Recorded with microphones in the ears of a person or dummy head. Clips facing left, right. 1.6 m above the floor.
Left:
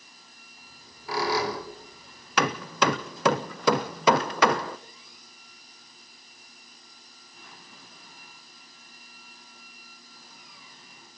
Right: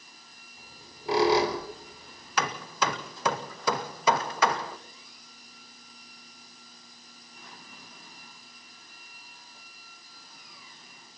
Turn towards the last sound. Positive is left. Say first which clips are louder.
# left 5 dB
turn(degrees=55)  # may be behind; listen again after turning